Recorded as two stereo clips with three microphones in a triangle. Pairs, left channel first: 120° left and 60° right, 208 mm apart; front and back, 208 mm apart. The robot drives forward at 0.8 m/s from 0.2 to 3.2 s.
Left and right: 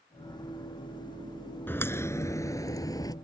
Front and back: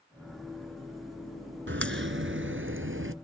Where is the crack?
160° right; by 3.1 s 170° right.